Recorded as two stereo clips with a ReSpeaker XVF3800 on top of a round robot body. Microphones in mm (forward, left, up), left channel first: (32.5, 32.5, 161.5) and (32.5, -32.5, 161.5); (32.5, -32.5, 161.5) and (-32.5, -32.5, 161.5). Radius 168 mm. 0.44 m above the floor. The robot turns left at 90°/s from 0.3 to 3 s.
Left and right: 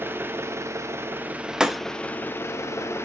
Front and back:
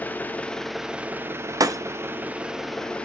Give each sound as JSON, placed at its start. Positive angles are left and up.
{"t": 0.0, "sound": "an engine running", "azimuth_deg": -50, "distance_m": 1.0}
{"t": 1.6, "sound": "breaking glass", "azimuth_deg": -165, "distance_m": 0.8}